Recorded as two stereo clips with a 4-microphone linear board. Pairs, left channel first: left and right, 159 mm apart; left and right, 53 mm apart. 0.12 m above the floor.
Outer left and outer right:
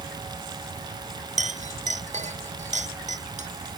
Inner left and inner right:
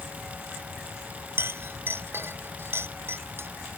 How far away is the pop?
No pop in this recording.